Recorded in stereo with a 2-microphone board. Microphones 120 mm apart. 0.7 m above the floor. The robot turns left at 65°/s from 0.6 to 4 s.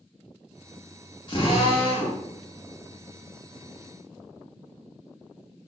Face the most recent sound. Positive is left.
turn(degrees=-45)